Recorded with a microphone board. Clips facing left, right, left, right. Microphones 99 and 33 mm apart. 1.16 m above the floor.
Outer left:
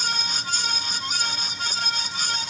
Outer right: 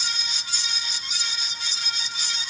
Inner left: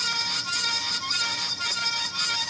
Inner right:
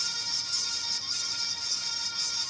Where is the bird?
I don't hear a bird.